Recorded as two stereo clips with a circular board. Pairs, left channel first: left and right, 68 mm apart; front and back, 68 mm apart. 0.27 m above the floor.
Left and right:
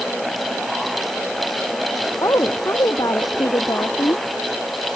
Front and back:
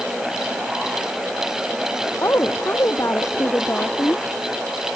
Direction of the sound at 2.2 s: 50° left.